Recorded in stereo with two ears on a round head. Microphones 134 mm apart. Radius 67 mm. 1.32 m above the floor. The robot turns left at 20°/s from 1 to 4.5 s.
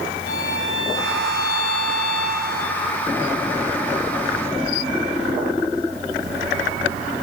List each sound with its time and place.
0.3 s a violin: 115° left, 3.5 m; by 2.8 s 80° left, 3.5 m